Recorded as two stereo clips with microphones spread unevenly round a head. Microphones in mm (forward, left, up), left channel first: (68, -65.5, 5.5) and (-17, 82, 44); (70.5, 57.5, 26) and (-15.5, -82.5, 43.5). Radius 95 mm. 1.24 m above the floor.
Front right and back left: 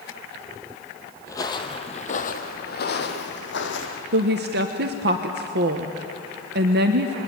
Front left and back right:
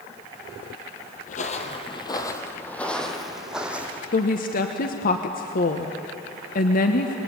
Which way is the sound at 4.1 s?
90° left.